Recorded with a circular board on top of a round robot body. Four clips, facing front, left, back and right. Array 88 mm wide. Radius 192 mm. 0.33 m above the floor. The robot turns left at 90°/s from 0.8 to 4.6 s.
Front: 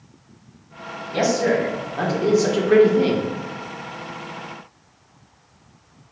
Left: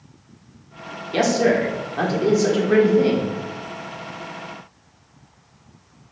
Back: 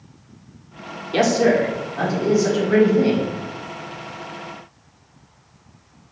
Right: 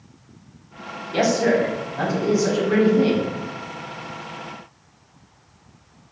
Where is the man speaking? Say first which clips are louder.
Left 1 dB, back 3 dB; 150° left, 1.4 m; by 3.3 s 45° right, 1.4 m.